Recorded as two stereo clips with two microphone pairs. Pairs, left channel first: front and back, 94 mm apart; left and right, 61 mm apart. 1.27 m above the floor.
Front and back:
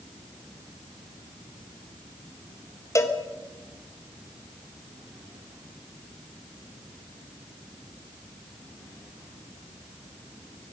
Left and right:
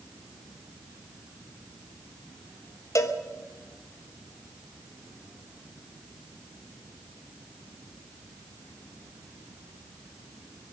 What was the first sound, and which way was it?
A cowbell, 55° left.